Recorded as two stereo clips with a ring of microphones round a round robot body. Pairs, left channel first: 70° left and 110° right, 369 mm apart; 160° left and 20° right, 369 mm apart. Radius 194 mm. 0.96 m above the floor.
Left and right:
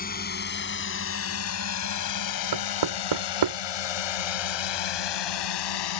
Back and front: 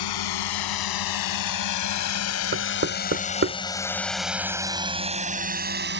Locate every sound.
0.0 s a drone: 135° left; by 6.0 s 40° left
2.5 s knocking: 85° right